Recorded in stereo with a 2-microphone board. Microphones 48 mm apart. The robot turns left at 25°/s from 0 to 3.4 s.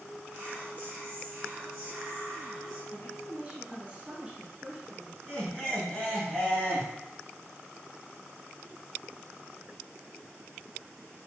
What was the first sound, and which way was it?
Whispering, 25° right (ahead or behind).